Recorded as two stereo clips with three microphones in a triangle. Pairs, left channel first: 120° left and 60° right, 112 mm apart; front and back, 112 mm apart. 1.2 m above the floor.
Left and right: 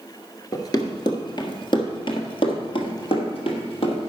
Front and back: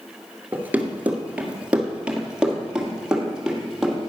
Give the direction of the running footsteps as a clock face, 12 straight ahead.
8 o'clock.